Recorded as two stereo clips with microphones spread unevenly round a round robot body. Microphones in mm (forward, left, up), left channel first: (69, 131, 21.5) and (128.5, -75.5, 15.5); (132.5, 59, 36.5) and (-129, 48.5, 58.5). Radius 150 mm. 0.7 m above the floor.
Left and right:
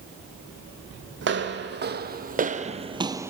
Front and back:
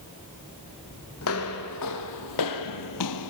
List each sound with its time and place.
1.2 s footsteps: 45° right, 2 m; by 3.3 s 5° left, 1.3 m